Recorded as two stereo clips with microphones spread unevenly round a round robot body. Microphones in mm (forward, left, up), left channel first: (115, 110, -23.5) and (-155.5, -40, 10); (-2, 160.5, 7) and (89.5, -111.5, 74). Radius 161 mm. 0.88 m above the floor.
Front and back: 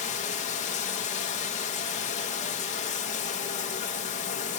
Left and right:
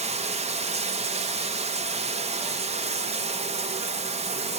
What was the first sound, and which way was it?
Running water, 5° left.